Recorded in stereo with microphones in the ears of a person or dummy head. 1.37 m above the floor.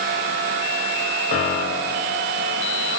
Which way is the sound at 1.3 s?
50° left (ahead or behind).